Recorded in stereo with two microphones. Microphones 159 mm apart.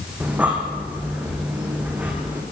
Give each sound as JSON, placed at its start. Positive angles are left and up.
{"t": 0.2, "sound": "breathing", "side_deg": -10, "distance_m": 5.5}